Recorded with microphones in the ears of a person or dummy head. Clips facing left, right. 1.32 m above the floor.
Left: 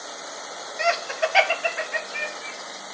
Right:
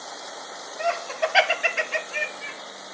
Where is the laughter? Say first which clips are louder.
Left 1 dB; 25° left (ahead or behind), 1.4 m; by 2.5 s 70° right (ahead or behind), 1.7 m.